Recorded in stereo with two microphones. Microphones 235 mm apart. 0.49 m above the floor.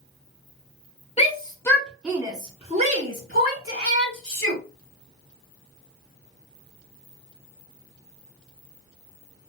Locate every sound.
1.2 s a shout: 30° left (ahead or behind), 0.8 m; by 4.6 s 60° right (ahead or behind), 1.5 m